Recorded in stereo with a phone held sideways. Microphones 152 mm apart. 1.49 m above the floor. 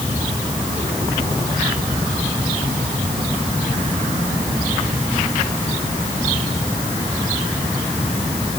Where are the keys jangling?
I don't hear keys jangling.